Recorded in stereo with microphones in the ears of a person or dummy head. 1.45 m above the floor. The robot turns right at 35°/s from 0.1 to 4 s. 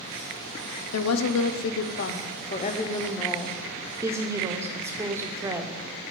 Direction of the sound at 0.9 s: 95° left.